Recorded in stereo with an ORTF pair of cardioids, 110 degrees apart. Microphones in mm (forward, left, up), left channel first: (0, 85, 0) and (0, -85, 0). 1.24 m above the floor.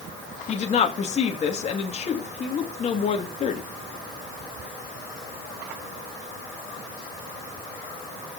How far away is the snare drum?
No snare drum in this recording.